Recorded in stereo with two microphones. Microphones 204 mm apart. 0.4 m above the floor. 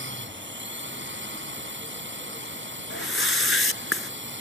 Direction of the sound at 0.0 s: 70° right (ahead or behind).